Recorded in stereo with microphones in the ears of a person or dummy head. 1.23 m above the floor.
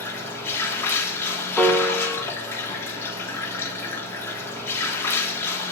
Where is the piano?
5° left (ahead or behind), 0.9 m.